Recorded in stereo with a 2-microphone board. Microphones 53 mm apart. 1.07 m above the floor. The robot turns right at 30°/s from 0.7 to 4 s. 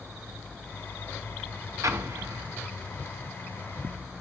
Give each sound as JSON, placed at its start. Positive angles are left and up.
{"t": 1.8, "sound": "an explosion", "side_deg": -80, "distance_m": 1.1}